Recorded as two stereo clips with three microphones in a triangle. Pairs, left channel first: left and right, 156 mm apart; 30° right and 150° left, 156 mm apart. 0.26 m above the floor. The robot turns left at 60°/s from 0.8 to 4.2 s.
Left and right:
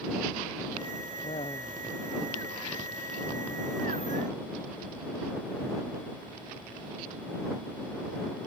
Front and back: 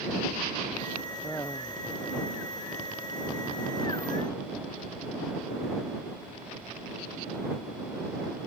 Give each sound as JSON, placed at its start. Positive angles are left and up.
{"t": 1.2, "sound": "laughter", "azimuth_deg": 55}